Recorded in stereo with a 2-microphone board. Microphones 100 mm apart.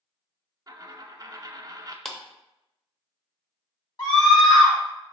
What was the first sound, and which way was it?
A dropped coin, 35° right (ahead or behind).